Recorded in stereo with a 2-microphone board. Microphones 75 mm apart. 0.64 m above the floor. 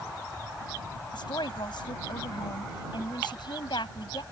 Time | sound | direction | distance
1.1 | a woman speaking | 75° left (ahead or behind) | ?